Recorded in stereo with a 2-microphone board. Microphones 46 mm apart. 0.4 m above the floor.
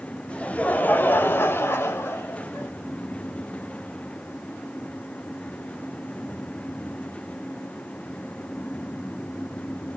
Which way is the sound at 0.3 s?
25° left (ahead or behind).